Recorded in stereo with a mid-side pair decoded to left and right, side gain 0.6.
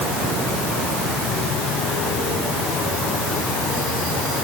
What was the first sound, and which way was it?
Only background noise.